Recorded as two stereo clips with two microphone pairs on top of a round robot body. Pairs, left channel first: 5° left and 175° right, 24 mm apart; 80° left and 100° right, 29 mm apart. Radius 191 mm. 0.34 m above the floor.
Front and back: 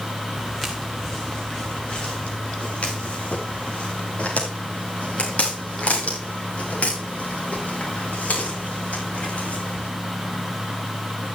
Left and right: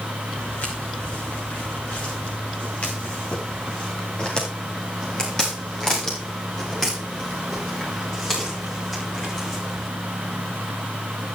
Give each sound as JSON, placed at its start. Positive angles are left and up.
{"t": 0.4, "sound": "footsteps", "azimuth_deg": 90, "distance_m": 2.5}